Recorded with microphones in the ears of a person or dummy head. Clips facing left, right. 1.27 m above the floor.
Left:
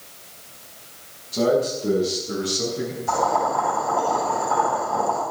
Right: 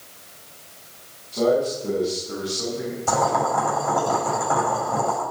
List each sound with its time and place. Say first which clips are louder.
1.3 s a man speaking: even; 20° left (ahead or behind), 9 m; by 3.0 s 30° left (ahead or behind), 10 m
3.1 s boiling: right 1 dB; 75° right (ahead or behind), 7.5 m